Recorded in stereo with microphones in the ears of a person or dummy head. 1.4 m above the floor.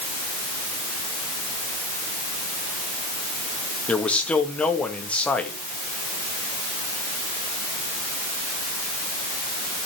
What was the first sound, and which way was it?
A man speaking, 5° left (ahead or behind).